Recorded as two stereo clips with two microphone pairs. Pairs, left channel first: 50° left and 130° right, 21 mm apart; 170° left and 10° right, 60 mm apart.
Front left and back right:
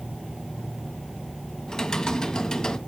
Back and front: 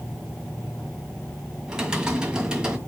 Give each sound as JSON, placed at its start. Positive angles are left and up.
{"t": 1.7, "sound": "typing on a keyboard", "azimuth_deg": 60, "distance_m": 1.9}